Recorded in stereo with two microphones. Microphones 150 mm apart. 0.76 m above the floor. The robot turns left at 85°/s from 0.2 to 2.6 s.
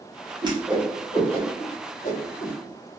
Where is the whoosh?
30° right (ahead or behind), 0.9 m; by 2.5 s 30° left (ahead or behind), 0.9 m.